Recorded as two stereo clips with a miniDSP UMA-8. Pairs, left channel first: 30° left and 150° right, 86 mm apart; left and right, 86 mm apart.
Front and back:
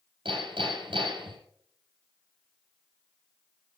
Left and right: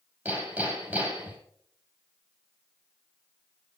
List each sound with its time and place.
0.2 s hammering: 160° right, 5.5 m